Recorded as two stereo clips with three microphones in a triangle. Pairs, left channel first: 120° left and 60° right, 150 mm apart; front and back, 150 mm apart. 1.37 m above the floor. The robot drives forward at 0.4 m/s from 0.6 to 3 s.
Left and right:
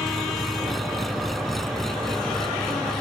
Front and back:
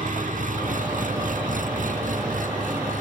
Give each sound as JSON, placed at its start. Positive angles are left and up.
{"t": 0.0, "sound": "an engine running", "azimuth_deg": -150}